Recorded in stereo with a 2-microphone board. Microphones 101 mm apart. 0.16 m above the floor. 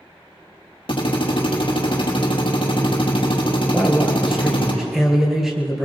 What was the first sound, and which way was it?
A drill, 60° left (ahead or behind).